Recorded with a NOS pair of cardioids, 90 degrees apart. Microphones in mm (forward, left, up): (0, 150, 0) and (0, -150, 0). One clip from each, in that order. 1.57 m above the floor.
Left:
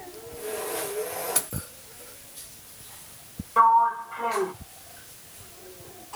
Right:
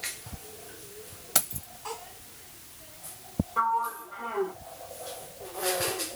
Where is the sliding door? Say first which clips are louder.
Left 9 dB; 35° left, 0.7 m.